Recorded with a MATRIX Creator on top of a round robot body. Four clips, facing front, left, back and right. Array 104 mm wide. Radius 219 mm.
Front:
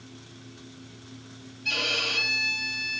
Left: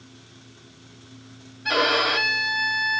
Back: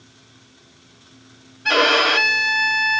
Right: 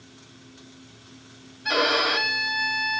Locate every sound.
1.6 s a violin: straight behind, 0.7 m